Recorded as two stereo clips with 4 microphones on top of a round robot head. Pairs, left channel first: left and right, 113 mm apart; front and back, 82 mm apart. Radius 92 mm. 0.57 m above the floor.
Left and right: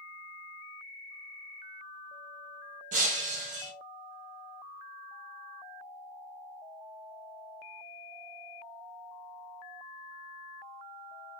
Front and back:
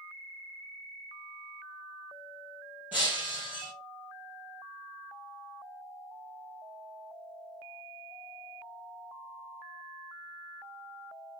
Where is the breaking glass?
100° right, 1.4 m.